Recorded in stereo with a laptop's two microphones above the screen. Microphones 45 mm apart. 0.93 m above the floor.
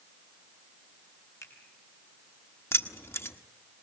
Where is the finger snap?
85° left, 5.5 m.